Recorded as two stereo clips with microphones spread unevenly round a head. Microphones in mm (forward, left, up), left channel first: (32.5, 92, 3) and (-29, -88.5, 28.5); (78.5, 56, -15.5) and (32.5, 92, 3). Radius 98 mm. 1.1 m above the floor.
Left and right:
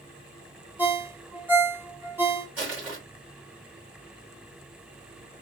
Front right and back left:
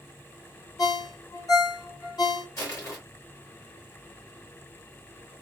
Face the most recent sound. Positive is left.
turn(degrees=-25)